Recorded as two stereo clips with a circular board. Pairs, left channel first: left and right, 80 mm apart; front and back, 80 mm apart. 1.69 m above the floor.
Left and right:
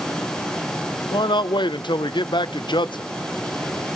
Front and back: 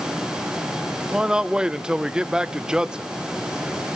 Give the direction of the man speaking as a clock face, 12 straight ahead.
9 o'clock.